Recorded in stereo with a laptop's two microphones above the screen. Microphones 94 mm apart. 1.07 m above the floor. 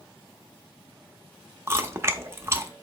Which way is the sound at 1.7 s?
25° right (ahead or behind).